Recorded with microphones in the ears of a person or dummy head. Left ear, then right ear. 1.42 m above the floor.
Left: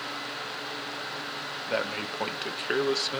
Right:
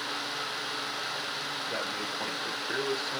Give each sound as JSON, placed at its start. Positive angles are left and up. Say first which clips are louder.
{"t": 1.7, "sound": "a man speaking", "louder": "left 2 dB", "side_deg": 70, "distance_m": 1.7}